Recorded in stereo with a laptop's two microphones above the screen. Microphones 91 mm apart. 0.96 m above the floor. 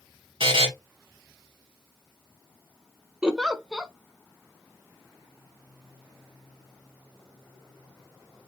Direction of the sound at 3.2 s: 5° right (ahead or behind).